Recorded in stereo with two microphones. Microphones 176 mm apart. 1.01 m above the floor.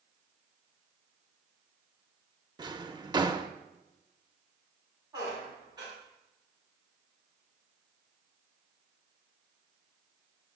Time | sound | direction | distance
2.6 | a drawer | 25° right (ahead or behind) | 0.7 m
5.1 | a squeak | 25° right (ahead or behind) | 5.5 m